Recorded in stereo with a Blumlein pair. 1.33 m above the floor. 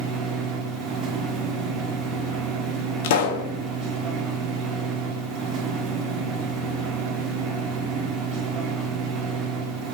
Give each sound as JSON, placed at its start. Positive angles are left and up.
{"t": 0.0, "sound": "a machine running", "azimuth_deg": -30, "distance_m": 0.8}
{"t": 3.0, "sound": "a pop", "azimuth_deg": 50, "distance_m": 0.5}